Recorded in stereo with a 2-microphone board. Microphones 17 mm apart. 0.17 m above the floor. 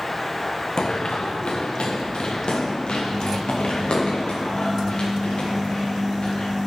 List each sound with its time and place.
0.8 s running footsteps: 55° left (ahead or behind), 0.9 m; by 6.5 s 85° left, 5 m